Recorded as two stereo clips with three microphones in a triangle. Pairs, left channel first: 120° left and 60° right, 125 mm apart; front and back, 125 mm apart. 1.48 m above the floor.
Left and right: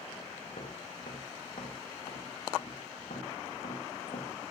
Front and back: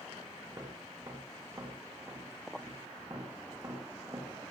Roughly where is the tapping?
Behind left.